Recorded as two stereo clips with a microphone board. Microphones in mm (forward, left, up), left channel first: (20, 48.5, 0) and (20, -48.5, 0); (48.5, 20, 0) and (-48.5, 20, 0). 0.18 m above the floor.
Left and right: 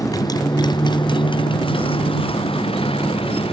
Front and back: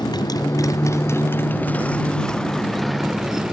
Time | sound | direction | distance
0.0 | a motorcycle | 40° left | ?